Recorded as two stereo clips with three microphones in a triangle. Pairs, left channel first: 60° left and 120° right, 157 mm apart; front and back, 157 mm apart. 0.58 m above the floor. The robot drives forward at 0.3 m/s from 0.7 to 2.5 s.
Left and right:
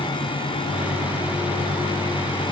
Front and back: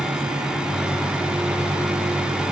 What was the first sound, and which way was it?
Only background noise.